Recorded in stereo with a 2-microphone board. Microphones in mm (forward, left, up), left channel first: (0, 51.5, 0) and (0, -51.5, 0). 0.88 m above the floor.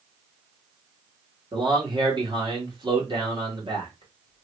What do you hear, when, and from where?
1.5 s a man speaking: 50° right (ahead or behind), 1.5 m